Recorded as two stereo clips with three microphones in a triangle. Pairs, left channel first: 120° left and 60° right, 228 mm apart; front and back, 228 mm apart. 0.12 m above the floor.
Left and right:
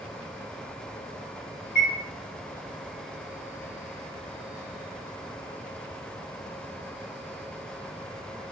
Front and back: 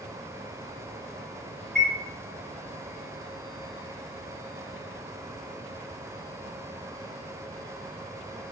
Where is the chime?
85° right, 1.9 m.